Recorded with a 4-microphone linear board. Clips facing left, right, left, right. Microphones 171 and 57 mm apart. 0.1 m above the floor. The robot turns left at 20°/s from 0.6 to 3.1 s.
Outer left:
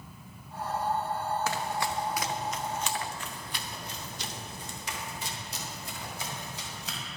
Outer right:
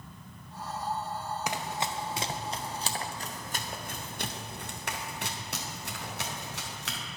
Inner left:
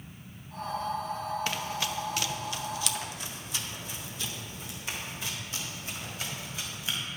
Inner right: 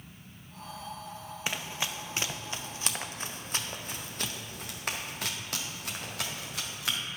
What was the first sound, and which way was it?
Running footsteps, 15° right (ahead or behind).